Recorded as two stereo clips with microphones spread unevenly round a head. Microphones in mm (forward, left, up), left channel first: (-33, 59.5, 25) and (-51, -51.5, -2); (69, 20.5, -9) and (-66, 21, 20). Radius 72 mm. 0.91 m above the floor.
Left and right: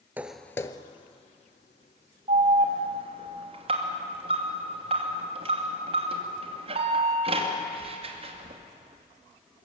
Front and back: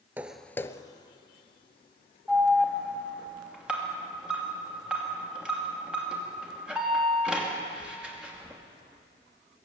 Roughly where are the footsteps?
Behind.